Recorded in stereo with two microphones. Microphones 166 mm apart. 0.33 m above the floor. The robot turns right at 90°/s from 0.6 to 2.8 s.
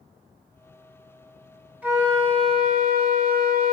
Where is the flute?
170° right, 1.0 m; by 3.7 s 85° right, 1.0 m.